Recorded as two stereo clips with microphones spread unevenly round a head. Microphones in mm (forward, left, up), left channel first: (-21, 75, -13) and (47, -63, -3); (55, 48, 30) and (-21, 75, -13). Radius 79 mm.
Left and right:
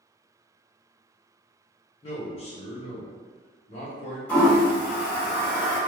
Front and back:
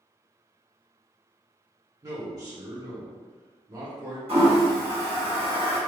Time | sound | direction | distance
2.0 | a man speaking | 165° left | 0.8 m
4.3 | a toilet flushing | 160° right | 1.0 m